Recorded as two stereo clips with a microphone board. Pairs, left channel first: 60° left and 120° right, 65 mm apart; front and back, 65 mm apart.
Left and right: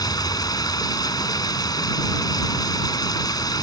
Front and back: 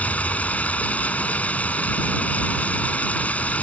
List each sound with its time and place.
0.0 s running water: 70° left